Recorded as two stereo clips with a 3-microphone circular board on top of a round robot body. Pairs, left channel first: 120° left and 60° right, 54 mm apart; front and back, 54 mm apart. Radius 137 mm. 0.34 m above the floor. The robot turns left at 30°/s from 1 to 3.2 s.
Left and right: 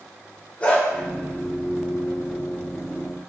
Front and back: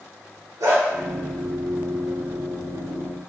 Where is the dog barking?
175° right, 3 m.